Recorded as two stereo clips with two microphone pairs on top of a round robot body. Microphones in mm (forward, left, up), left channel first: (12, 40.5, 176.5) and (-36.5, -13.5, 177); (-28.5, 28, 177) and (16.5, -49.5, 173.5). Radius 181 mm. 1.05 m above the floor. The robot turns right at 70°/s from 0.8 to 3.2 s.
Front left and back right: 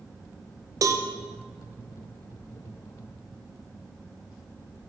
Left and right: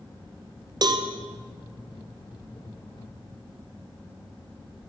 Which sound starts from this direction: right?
A cowbell, at 0.8 s.